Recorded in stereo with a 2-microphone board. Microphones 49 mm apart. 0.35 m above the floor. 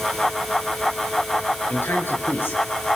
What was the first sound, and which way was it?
A man speaking, 45° left (ahead or behind).